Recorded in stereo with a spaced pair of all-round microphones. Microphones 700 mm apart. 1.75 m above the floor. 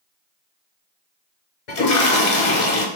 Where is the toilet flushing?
85° left, 0.9 m.